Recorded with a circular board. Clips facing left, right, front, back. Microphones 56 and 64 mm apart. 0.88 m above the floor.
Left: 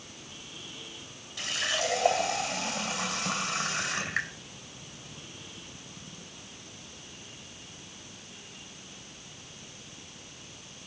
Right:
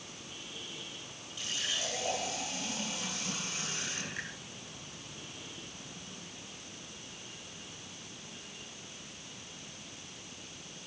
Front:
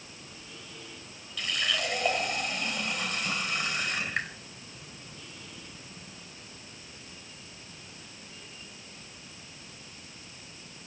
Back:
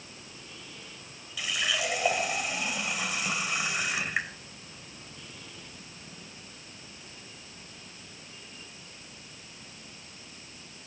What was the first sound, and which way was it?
A running tap, 95° left.